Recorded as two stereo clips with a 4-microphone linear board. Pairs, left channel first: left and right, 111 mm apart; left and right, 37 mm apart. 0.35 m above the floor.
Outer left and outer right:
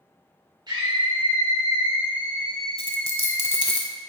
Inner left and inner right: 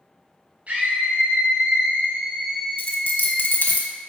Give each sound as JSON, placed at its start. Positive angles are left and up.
{"t": 0.7, "sound": "a scream", "side_deg": -45, "distance_m": 1.9}
{"t": 2.8, "sound": "a dropped coin", "side_deg": 60, "distance_m": 1.2}